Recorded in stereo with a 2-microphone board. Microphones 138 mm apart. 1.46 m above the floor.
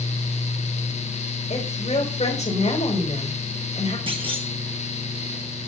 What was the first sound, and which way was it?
A woman speaking, 55° left (ahead or behind).